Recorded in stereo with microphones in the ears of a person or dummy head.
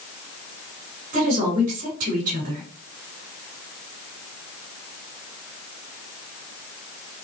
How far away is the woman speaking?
About 2 m.